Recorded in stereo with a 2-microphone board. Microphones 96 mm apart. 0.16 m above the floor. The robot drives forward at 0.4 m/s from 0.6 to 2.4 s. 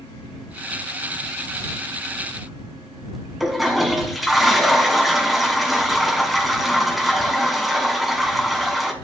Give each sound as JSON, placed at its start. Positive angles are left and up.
{"t": 3.4, "sound": "a toilet flushing", "side_deg": 0, "distance_m": 1.1}